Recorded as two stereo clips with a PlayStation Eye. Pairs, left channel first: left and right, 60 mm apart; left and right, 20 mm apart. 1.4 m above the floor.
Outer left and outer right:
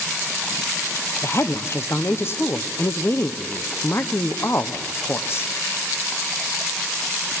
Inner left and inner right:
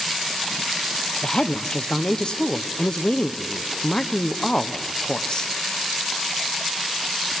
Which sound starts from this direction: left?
A woman speaking, at 1.2 s.